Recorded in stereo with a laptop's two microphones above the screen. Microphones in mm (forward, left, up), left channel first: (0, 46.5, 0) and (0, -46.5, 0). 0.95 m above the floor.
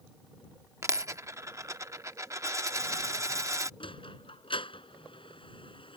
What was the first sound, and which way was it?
A dropped coin, 35° right (ahead or behind).